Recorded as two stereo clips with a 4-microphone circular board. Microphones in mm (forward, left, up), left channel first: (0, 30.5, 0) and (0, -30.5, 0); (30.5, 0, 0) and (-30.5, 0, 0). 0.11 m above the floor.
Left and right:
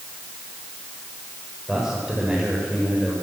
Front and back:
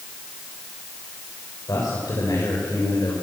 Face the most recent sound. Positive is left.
turn(degrees=-5)